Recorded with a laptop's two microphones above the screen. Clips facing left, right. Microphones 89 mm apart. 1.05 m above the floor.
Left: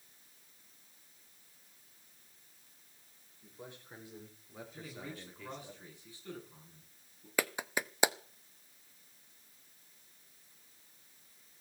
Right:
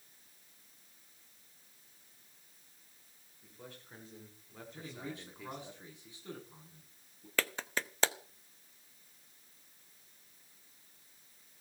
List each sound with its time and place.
3.4 s a man speaking: 25° left (ahead or behind), 4.5 m; by 5.7 s 20° right (ahead or behind), 2.5 m
4.7 s a man speaking: 20° right (ahead or behind), 9.5 m
7.4 s a clap: 15° left (ahead or behind), 0.8 m